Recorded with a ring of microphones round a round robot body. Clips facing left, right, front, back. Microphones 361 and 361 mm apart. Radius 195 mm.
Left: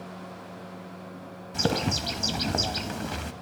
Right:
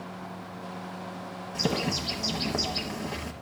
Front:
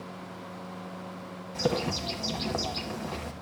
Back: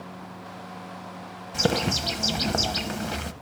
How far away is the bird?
About 0.6 m.